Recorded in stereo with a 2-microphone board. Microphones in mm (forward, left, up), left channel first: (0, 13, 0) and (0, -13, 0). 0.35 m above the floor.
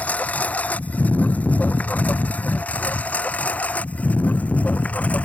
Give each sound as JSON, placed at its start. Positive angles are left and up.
{"t": 0.0, "sound": "a lawn mower", "side_deg": 80}